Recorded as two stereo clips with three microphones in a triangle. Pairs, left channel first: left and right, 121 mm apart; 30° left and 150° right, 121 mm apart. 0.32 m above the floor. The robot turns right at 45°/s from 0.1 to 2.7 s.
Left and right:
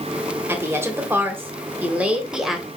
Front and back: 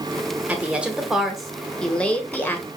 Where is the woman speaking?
100° right, 0.9 m; by 2.7 s 5° right, 0.9 m.